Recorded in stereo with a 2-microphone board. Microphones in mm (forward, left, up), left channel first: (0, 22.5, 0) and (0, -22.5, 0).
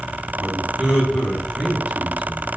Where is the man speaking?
15° right (ahead or behind), 1.5 m.